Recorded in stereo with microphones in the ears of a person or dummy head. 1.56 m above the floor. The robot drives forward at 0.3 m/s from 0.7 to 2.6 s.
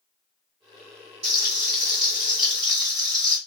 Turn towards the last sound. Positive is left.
turn(degrees=-20)  # may be behind; listen again after turning